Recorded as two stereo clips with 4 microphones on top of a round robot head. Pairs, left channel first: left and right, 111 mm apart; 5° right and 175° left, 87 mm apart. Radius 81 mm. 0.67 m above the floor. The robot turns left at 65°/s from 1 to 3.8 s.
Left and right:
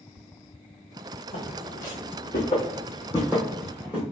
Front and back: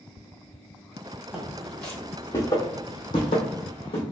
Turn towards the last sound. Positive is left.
turn(degrees=-5)